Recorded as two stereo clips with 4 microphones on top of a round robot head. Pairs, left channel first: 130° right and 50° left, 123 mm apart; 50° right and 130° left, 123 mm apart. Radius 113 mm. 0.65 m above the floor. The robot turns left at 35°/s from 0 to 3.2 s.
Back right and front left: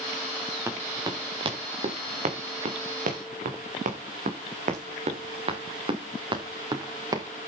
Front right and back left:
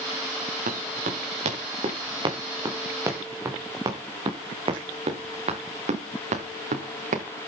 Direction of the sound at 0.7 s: 120° left.